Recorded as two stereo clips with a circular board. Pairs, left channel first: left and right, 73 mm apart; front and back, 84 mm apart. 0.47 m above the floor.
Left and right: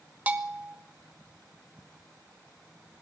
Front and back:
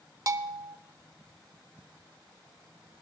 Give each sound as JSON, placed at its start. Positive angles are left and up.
{"t": 0.3, "sound": "a bell", "azimuth_deg": -150, "distance_m": 0.9}